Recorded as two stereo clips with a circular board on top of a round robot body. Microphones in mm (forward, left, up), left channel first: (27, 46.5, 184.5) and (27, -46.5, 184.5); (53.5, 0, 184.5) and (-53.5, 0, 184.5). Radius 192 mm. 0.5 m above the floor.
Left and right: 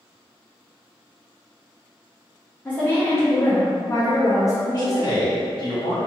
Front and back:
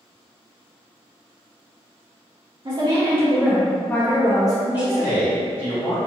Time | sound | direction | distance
2.6 | a woman speaking | 155° left | 0.9 m
4.8 | a man speaking | 65° left | 1.7 m